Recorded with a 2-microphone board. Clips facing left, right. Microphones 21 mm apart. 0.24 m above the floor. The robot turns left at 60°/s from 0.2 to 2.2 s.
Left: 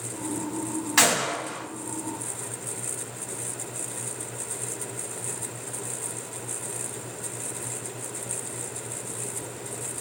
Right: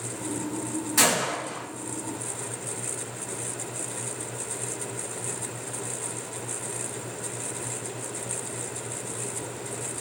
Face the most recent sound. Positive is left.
turn(degrees=40)